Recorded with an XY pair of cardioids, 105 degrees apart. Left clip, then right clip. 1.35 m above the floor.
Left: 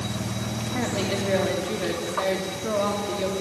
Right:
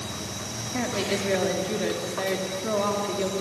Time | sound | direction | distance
0.7 | a woman speaking | 5° right | 3 m